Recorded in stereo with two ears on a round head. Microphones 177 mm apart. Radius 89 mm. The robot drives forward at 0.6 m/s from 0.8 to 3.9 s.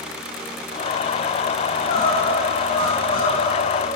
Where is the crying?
50° left (ahead or behind), 6.5 m; by 4.0 s 60° left (ahead or behind), 6 m.